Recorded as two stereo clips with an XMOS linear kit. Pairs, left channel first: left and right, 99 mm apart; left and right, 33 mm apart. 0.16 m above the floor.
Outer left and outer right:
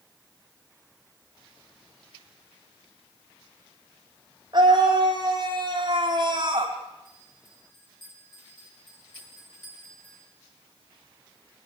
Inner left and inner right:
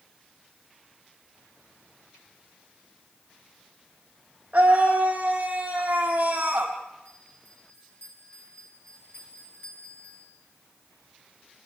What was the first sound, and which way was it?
A scream, 45° right (ahead or behind).